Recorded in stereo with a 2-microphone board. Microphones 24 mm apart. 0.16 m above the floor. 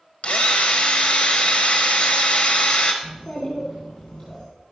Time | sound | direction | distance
0.2 | a drill | 55° left (ahead or behind) | 1.7 m
3.0 | a child speaking | 45° left (ahead or behind) | 3 m